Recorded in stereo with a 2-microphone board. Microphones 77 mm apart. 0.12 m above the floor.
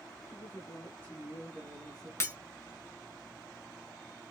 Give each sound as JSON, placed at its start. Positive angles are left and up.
{"t": 0.3, "sound": "a woman speaking", "side_deg": 40, "distance_m": 1.6}
{"t": 2.2, "sound": "breaking glass", "side_deg": 35, "distance_m": 0.8}